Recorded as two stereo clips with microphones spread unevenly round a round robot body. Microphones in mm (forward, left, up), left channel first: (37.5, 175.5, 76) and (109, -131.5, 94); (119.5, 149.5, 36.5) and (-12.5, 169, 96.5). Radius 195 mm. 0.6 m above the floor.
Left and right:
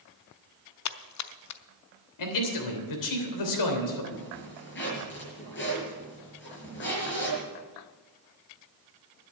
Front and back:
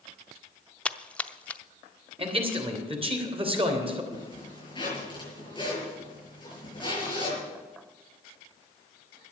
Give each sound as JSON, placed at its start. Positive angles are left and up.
{"t": 0.8, "sound": "a splash", "azimuth_deg": 70, "distance_m": 0.8}
{"t": 2.2, "sound": "a man speaking", "azimuth_deg": 115, "distance_m": 3.0}
{"t": 4.1, "sound": "a zipper", "azimuth_deg": 50, "distance_m": 6.5}